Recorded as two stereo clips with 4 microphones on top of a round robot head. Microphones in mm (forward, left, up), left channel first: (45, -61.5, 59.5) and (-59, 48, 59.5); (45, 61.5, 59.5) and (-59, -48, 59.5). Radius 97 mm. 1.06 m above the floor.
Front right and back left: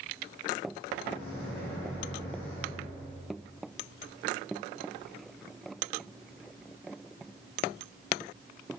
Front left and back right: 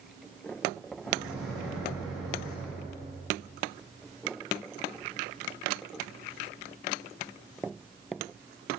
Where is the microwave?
45° right, 1.5 m.